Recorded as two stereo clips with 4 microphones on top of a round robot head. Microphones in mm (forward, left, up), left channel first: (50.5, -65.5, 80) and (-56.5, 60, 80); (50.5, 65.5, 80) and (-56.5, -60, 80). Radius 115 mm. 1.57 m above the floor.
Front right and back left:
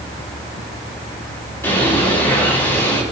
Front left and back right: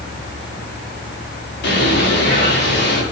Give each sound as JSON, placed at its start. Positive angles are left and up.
{"t": 1.6, "sound": "a bird", "azimuth_deg": 25, "distance_m": 7.5}